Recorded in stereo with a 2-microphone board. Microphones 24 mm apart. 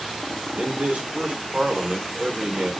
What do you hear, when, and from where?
0.6 s a man speaking: 55° right (ahead or behind), 1.0 m